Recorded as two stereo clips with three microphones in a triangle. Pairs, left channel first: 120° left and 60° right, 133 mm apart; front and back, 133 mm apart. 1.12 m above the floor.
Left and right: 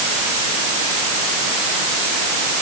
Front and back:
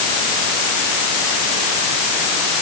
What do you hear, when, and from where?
Only background noise.